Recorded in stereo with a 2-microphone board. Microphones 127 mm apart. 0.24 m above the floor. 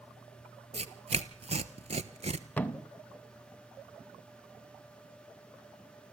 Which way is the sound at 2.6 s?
15° left (ahead or behind).